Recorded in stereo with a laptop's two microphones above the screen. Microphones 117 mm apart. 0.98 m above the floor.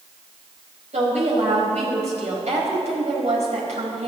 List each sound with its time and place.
0.9 s a woman speaking: 75° right (ahead or behind), 4.5 m